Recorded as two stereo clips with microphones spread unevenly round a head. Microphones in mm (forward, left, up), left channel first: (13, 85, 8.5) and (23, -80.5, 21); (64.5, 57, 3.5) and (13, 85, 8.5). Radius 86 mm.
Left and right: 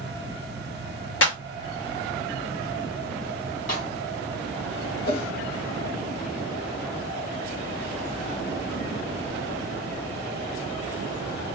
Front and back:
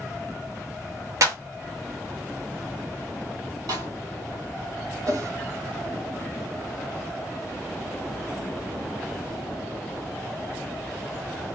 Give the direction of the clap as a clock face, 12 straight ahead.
8 o'clock.